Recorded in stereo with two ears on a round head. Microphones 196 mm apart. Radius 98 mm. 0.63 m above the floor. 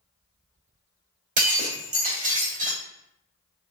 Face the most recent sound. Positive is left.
turn(degrees=-35)  # may be behind; listen again after turning